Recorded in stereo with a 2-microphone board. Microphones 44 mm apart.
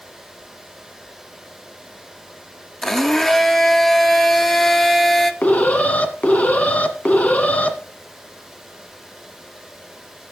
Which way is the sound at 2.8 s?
10° left (ahead or behind).